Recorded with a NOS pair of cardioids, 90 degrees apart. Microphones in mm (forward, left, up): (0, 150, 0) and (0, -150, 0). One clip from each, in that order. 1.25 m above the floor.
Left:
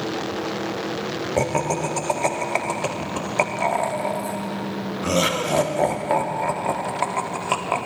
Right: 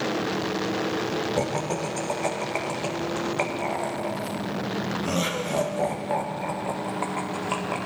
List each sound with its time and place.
1.4 s laughter: 35° left, 1.1 m